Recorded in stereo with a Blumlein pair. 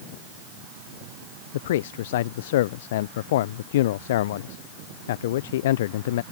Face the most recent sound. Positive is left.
turn(degrees=55)